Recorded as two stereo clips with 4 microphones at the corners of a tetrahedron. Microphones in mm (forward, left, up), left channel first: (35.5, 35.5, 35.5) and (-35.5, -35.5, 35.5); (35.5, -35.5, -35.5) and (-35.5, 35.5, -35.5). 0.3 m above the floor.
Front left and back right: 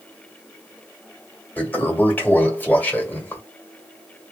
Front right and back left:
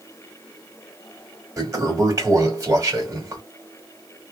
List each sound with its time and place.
1.6 s a toilet flushing: 110° left, 1.9 m